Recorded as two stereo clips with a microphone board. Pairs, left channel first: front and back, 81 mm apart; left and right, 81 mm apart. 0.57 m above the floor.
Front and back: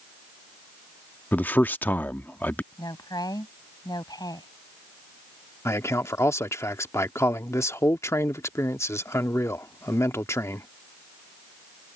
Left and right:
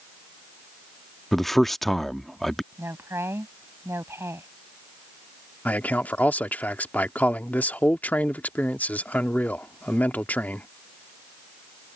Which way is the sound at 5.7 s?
30° left.